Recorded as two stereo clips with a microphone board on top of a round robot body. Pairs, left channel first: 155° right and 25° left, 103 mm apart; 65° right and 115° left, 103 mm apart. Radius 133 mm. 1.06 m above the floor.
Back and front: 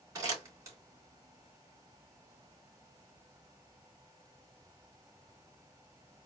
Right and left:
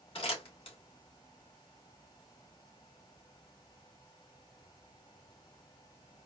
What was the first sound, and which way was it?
Crumpling, 35° right.